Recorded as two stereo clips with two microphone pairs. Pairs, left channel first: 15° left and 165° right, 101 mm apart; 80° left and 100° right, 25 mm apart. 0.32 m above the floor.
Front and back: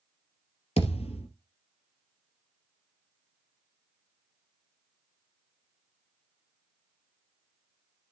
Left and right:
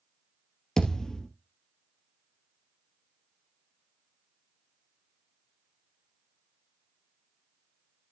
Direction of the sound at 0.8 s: 10° left.